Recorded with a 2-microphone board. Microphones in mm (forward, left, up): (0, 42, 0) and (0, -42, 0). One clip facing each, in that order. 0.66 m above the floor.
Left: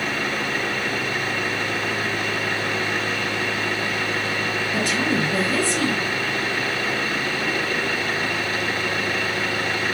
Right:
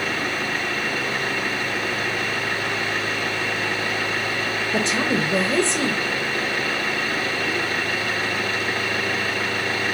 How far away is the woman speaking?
About 0.6 m.